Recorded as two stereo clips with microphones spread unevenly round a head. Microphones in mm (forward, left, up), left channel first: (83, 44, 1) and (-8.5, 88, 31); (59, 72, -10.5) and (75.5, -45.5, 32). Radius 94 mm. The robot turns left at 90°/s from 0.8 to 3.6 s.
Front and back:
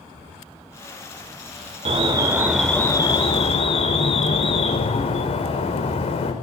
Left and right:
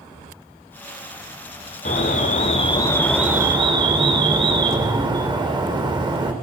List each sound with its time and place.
1.9 s an alarm: 130° left, 4.5 m; by 6.3 s 25° right, 4.5 m